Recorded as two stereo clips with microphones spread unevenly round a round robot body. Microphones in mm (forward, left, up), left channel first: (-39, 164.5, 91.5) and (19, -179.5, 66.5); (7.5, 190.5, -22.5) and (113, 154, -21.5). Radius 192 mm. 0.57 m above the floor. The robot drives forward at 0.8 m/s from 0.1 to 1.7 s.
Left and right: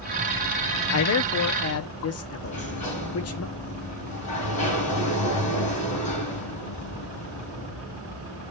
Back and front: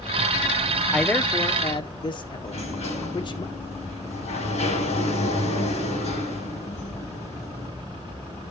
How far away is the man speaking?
About 0.8 m.